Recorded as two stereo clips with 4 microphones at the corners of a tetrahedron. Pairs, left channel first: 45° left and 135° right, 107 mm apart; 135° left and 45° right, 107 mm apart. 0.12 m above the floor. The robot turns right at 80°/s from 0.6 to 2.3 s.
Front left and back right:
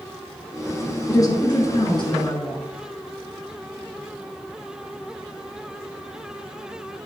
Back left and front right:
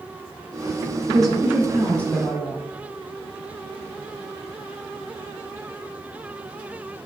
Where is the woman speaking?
10° right, 1.6 m; by 2.6 s 85° left, 1.6 m.